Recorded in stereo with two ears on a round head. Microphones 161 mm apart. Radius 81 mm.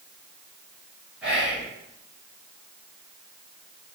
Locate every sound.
1.2 s whispering: 5° right (ahead or behind), 0.8 m